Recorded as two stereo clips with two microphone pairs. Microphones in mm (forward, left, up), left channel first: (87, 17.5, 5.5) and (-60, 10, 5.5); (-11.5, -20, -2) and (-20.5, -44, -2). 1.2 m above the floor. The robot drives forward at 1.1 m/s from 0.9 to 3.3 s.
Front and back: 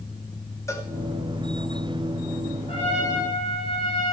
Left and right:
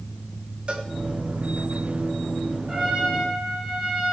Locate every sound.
0.7 s a cowbell: 65° right, 2.5 m
2.7 s a trumpet: 45° right, 9 m; by 4.1 s 50° right, 8.5 m